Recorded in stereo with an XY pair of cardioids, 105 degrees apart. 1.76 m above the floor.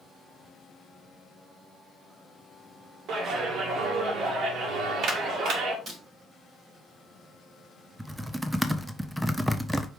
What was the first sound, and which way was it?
A clap, 65° right.